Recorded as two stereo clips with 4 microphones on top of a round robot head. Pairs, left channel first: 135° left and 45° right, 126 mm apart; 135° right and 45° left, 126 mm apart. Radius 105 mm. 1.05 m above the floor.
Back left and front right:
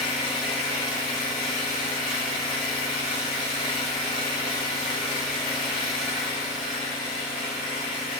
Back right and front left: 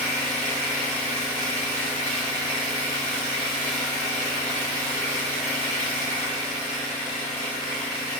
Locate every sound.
0.0 s an engine running: 175° right, 1.8 m